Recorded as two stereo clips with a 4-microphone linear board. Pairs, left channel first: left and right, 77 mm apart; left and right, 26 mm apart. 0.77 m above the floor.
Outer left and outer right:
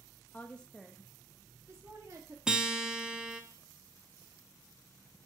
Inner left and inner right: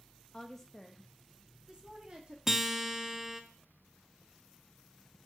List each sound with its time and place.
0.3 s a woman speaking: 25° left (ahead or behind), 0.8 m; by 2.4 s 50° right (ahead or behind), 1.5 m
2.5 s a guitar: 10° right (ahead or behind), 0.8 m